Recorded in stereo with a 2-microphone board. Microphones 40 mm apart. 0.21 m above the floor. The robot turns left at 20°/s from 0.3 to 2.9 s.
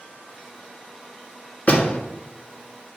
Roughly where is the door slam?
Left.